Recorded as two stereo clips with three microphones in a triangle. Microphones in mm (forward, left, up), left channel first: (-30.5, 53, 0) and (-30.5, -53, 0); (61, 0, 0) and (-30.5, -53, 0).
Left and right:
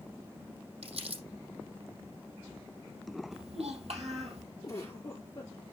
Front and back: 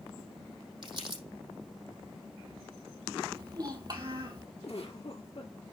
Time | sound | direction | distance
0.8 | crumpling | 110° right | 5.5 m
3.3 | a child speaking | 100° right | 3.5 m
4.6 | a giggle | 40° left | 4.5 m